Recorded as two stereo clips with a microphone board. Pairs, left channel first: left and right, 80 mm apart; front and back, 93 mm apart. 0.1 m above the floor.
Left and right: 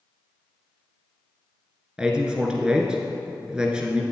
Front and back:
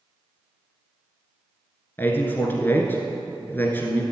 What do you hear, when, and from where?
2.0 s a man speaking: 25° right, 1.3 m